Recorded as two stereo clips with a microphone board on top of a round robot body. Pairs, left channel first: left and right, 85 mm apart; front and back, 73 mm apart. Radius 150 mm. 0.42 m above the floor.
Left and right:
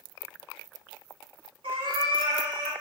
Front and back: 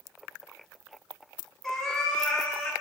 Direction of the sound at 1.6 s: 85° right.